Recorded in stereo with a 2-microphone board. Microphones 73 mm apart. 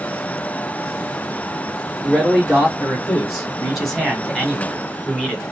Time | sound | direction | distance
2.0 | a man speaking | 5° right (ahead or behind) | 1.8 m